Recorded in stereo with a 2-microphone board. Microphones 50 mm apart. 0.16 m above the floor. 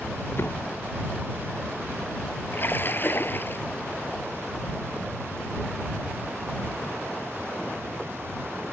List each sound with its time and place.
0.4 s a door slam: 55° left (ahead or behind)
2.5 s a splash: 45° left (ahead or behind)